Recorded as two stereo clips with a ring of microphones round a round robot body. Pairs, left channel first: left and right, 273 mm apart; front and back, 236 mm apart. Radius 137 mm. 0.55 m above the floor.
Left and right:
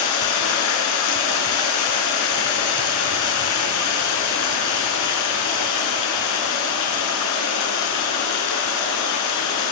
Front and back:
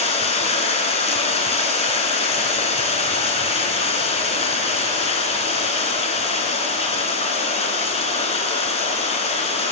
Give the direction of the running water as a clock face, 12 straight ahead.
10 o'clock.